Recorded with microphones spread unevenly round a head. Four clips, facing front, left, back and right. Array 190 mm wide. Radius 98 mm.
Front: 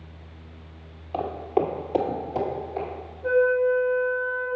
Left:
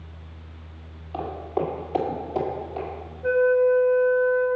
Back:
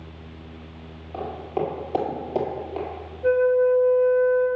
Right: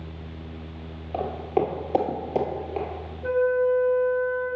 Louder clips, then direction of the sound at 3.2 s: Left 3 dB, back 2 dB; 170° left.